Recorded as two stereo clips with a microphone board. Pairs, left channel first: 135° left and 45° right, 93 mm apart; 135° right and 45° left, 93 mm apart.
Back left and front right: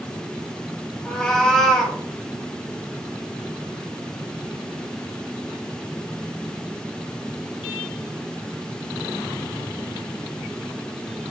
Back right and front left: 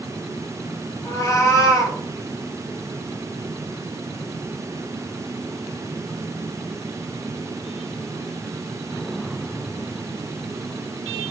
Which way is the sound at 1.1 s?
150° right.